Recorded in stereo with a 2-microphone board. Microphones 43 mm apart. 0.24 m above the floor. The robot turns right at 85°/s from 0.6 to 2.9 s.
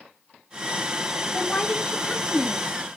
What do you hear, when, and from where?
1.3 s a woman speaking: 45° left, 1.7 m; by 2.6 s 155° left, 1.7 m